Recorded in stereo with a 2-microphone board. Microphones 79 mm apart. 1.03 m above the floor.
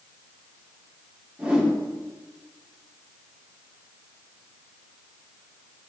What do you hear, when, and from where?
1.4 s a whoosh: 10° right (ahead or behind), 2.5 m